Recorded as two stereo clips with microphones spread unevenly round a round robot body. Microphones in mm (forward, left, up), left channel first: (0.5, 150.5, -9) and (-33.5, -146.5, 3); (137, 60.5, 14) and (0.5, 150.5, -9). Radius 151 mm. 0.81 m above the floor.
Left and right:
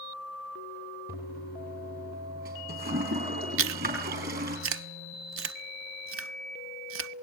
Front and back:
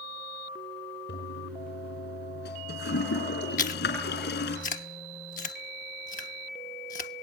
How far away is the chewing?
About 0.9 m.